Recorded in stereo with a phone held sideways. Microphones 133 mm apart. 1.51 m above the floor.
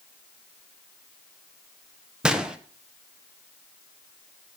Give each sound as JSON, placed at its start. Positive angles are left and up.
{"t": 2.2, "sound": "a gunshot", "side_deg": -5, "distance_m": 1.1}